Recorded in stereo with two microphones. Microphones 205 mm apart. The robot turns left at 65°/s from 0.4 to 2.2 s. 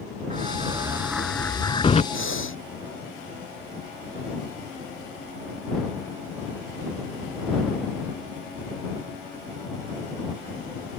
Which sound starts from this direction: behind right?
An explosion, at 0.3 s.